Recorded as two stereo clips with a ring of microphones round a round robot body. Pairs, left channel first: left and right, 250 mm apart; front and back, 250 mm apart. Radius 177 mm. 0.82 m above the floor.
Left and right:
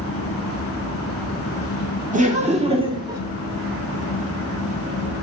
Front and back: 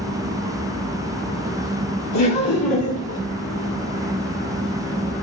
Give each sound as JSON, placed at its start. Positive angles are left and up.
{"t": 2.1, "sound": "laughter", "azimuth_deg": -30, "distance_m": 2.0}